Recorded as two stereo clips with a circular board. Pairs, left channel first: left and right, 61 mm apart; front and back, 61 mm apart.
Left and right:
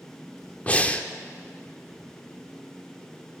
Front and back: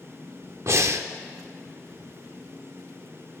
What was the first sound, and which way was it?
Breathing, 155° left.